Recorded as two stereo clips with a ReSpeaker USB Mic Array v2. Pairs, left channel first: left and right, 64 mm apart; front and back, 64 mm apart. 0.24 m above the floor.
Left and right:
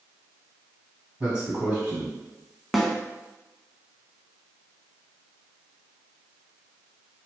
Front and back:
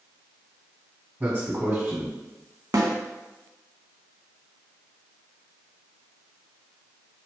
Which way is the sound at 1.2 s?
150° right.